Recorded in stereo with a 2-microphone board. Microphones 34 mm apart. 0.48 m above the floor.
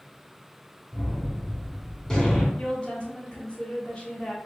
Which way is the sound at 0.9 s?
15° left (ahead or behind).